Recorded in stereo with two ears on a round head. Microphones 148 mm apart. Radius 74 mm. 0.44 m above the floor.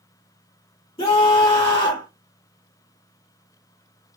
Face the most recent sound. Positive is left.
turn(degrees=30)  # may be behind; listen again after turning